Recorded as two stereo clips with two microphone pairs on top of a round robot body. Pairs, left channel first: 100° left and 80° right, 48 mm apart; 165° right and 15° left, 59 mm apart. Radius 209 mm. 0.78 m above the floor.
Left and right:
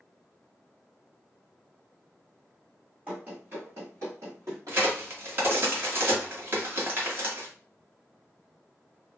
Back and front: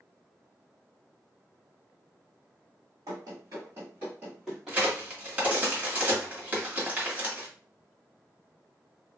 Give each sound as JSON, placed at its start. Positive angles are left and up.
{"t": 3.1, "sound": "running footsteps", "azimuth_deg": -15, "distance_m": 1.0}
{"t": 4.7, "sound": "a crack", "azimuth_deg": -45, "distance_m": 1.6}